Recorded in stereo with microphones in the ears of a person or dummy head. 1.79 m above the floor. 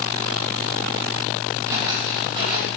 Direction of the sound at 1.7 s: 20° right (ahead or behind).